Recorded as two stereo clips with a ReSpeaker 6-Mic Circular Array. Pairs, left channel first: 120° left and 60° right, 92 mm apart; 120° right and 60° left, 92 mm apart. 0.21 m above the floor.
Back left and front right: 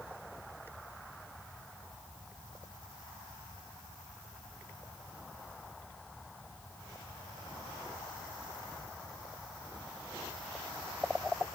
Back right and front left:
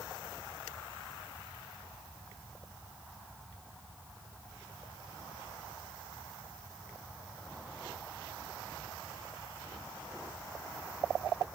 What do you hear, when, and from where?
Only background noise.